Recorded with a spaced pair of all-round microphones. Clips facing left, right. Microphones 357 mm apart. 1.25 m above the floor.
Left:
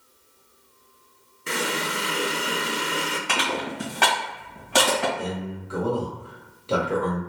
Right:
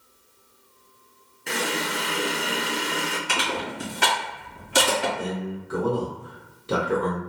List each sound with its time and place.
1.5 s a running tap: 10° left (ahead or behind), 0.5 m
3.3 s crushing: 70° left (ahead or behind), 1.5 m
5.2 s a man speaking: 25° right (ahead or behind), 1.0 m